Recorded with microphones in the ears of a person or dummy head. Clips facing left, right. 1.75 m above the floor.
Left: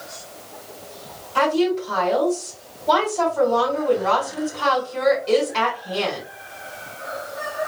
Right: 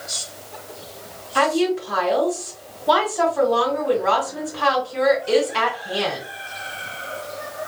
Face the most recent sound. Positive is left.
turn(degrees=-10)  # may be behind; listen again after turning